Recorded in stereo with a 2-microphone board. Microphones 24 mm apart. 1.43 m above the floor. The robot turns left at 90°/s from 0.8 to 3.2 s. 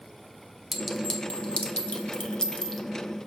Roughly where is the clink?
Centre.